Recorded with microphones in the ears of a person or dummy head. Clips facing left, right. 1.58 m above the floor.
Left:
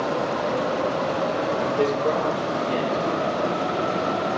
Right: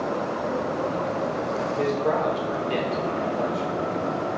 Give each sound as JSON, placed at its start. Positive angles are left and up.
{"t": 1.8, "sound": "a man speaking", "side_deg": 25, "distance_m": 0.5}